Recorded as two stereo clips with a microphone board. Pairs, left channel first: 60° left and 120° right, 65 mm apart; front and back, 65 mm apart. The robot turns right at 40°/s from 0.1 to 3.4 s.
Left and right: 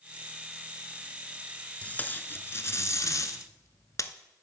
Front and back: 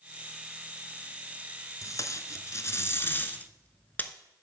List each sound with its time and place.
1.8 s tape being pulled: 5° right, 0.5 m; by 4.1 s 55° left, 0.5 m